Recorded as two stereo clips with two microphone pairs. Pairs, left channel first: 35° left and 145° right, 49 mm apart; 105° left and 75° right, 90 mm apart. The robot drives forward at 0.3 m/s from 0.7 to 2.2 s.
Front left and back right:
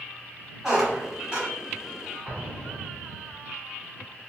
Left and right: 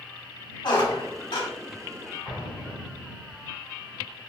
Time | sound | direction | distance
0.6 | a squeak | 135° left | 1.1 m
2.2 | an explosion | 155° left | 1.4 m